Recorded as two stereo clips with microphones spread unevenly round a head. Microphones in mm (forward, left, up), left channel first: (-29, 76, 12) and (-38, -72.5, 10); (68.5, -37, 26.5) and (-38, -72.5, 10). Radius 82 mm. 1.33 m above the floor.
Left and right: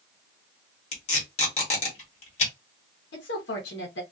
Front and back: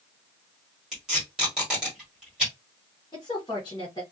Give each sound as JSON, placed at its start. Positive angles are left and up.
{"t": 0.9, "sound": "tape being pulled", "azimuth_deg": 105, "distance_m": 1.4}
{"t": 3.1, "sound": "a woman speaking", "azimuth_deg": 85, "distance_m": 0.9}